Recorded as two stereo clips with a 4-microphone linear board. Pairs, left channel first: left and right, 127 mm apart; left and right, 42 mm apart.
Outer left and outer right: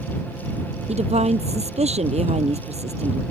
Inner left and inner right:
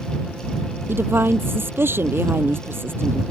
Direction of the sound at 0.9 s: 55° right (ahead or behind).